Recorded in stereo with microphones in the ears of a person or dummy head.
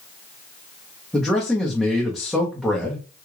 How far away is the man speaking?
About 0.7 m.